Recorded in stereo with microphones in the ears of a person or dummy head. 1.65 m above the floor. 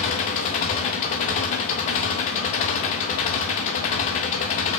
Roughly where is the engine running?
Left.